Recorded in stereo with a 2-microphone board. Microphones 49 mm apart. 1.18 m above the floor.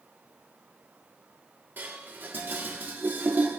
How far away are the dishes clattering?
About 1.8 m.